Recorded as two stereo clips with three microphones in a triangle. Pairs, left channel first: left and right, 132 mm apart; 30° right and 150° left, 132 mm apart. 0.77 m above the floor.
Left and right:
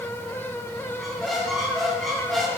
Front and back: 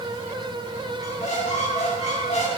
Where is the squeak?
Straight ahead, 2 m.